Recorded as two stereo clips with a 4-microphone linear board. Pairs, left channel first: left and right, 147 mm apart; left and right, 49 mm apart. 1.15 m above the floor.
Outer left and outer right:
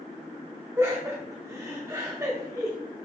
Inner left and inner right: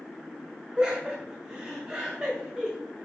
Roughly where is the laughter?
Centre.